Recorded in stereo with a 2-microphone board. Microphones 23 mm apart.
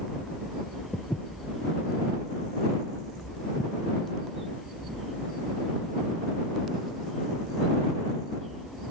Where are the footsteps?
25° left (ahead or behind); by 5.0 s 55° left (ahead or behind).